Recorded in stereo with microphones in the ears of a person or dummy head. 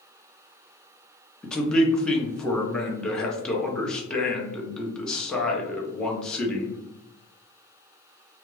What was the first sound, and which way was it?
A man speaking, 10° left (ahead or behind).